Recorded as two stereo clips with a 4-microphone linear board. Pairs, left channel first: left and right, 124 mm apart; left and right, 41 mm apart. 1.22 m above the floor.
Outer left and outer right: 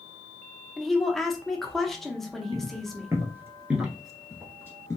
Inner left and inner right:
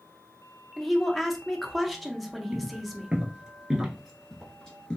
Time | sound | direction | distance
0.8 | a woman speaking | centre (ahead or behind) | 0.8 m
2.5 | footsteps | 35° right (ahead or behind) | 1.4 m